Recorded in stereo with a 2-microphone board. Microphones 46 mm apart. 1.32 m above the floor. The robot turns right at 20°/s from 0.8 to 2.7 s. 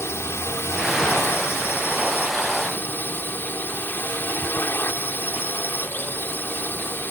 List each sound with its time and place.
0.0 s a drone: 90° left; by 7.1 s 130° left